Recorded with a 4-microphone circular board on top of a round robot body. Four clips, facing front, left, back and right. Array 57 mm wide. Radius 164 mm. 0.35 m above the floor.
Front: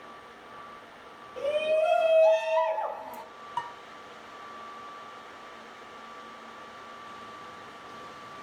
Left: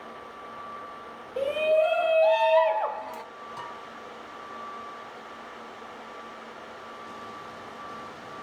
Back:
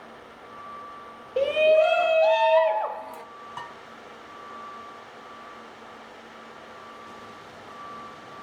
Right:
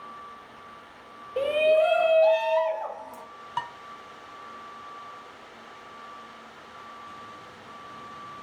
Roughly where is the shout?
Behind right.